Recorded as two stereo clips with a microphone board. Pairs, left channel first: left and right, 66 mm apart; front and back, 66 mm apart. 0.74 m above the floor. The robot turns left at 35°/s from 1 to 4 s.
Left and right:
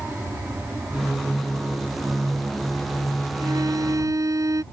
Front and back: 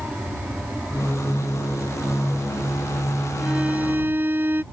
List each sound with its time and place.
0.0 s an aircraft: 120° right; by 4.7 s 135° left
3.4 s a violin: 100° right; by 4.6 s 120° right